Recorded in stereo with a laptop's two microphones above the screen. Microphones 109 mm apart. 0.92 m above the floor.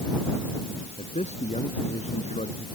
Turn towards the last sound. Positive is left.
turn(degrees=85)